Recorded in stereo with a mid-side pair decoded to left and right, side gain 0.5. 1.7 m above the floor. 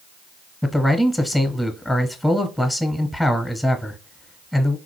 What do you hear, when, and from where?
0.6 s a man speaking: 5° left, 0.9 m